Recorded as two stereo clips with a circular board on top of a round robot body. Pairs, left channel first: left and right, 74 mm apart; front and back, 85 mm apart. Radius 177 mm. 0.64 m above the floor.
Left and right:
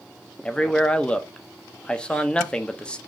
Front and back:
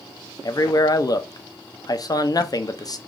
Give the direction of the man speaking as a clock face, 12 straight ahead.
11 o'clock.